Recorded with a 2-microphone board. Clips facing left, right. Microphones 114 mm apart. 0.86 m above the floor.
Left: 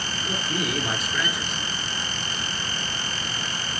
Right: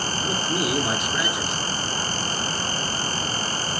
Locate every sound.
0.2 s a man speaking: 25° right (ahead or behind), 2.5 m